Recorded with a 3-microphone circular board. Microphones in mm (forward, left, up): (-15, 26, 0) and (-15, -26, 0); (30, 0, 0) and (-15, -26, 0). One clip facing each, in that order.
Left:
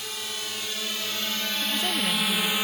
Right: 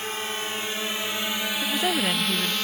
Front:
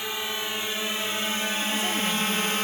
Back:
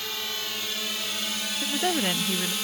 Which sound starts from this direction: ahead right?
A drone, at 0.0 s.